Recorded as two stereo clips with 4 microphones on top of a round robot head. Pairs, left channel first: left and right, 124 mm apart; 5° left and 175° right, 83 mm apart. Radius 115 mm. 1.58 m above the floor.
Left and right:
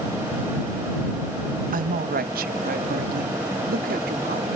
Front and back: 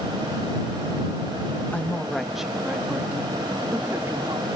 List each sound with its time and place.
1.7 s a woman speaking: 75° right; by 4.5 s 105° right